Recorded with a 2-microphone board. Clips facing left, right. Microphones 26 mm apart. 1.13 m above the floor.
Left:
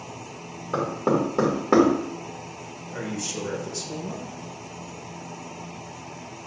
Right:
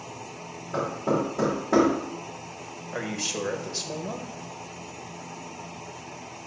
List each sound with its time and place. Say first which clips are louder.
0.7 s knocking: left 3 dB; 60° left (ahead or behind), 2.5 m
2.9 s a man speaking: right 1 dB; 40° right (ahead or behind), 1.3 m